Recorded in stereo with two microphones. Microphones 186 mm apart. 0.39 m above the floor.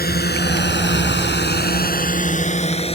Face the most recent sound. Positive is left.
turn(degrees=30)  # may be behind; listen again after turning